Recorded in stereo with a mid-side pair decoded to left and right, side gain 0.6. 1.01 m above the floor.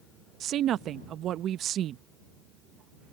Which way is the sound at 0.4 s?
55° right.